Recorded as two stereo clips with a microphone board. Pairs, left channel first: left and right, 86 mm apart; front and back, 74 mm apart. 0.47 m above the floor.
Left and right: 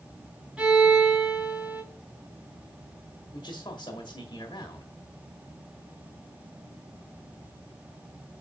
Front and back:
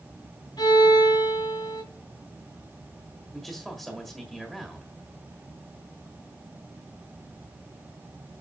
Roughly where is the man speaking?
Left.